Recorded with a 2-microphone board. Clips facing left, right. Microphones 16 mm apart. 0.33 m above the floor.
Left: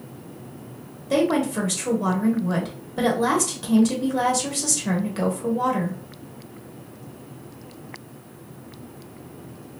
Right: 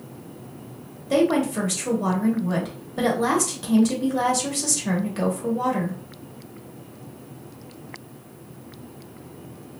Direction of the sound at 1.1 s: 15° left (ahead or behind).